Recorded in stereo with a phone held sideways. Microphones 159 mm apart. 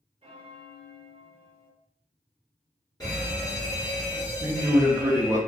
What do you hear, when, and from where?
0.2 s a bell: 35° right (ahead or behind), 0.7 m
3.0 s a fire alarm: 25° left (ahead or behind), 1.8 m
4.4 s a man speaking: 20° right (ahead or behind), 0.7 m